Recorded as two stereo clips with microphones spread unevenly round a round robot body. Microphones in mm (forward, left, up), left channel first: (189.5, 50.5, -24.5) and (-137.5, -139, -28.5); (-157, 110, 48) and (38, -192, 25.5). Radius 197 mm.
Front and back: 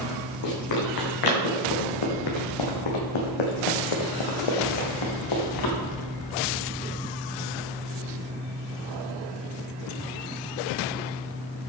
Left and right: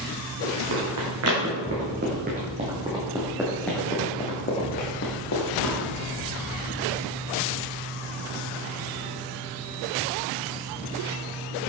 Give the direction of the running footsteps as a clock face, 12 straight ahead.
12 o'clock.